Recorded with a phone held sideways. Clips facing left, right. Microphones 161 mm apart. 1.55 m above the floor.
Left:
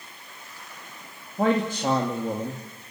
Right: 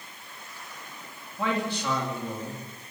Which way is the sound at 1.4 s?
45° left (ahead or behind).